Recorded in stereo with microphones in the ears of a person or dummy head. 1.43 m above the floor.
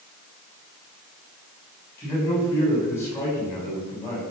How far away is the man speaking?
About 8.5 m.